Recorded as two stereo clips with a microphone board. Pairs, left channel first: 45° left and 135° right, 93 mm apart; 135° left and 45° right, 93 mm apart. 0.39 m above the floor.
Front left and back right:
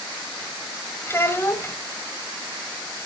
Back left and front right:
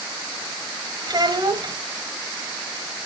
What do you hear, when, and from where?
1.1 s a child speaking: 15° right, 1.5 m